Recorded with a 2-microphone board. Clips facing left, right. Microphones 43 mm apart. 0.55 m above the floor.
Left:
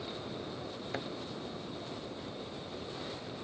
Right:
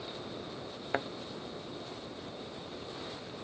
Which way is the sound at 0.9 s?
35° right (ahead or behind).